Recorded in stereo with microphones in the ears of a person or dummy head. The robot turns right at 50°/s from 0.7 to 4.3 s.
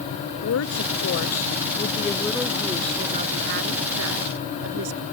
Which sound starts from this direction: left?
A woman speaking, at 0.4 s.